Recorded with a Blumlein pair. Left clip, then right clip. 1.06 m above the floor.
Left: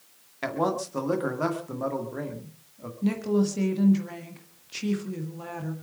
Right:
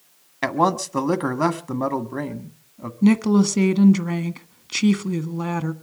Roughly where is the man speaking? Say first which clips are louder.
Right 7 dB; ahead right.